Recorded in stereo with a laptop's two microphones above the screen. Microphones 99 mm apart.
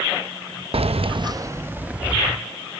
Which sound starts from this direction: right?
Keys jangling, at 0.7 s.